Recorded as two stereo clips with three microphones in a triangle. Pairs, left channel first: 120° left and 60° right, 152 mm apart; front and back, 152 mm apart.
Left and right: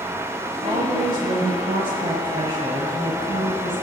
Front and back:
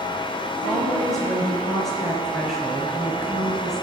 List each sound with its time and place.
0.6 s a woman speaking: 85° right, 1.2 m